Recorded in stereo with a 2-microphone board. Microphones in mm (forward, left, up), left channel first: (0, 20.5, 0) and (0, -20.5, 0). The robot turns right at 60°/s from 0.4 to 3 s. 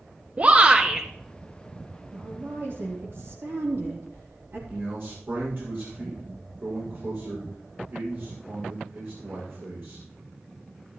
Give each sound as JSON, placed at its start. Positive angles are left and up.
{"t": 0.4, "sound": "a shout", "azimuth_deg": -40, "distance_m": 1.6}
{"t": 2.1, "sound": "a woman speaking", "azimuth_deg": -140, "distance_m": 3.5}
{"t": 4.7, "sound": "a man speaking", "side_deg": -65, "distance_m": 6.5}